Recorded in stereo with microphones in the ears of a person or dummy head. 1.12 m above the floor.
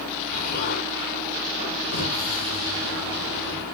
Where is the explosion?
55° left (ahead or behind), 1.8 m.